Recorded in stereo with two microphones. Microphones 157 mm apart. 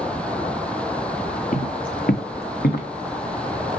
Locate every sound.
1.5 s footsteps: 60° left (ahead or behind), 1.6 m; by 2.9 s 80° left, 2.5 m